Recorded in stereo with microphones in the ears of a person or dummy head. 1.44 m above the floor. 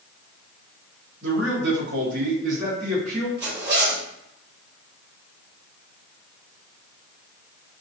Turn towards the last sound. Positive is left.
turn(degrees=-20)  # may be behind; listen again after turning